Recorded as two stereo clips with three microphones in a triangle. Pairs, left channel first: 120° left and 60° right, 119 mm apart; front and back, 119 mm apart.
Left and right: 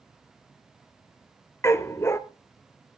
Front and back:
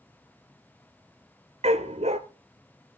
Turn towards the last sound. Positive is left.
turn(degrees=-175)